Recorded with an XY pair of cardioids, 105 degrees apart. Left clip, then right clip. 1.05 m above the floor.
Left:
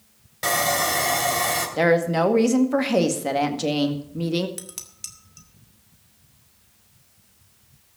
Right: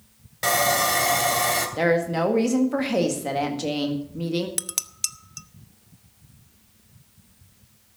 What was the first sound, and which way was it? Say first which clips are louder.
Sawing: right 1 dB; 10° right.